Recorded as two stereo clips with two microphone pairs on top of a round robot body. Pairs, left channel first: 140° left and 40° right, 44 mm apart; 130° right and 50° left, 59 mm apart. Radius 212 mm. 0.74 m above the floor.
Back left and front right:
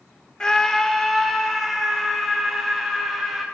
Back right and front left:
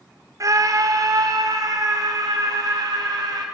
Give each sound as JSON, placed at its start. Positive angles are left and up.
{"t": 0.4, "sound": "a scream", "azimuth_deg": 70, "distance_m": 1.1}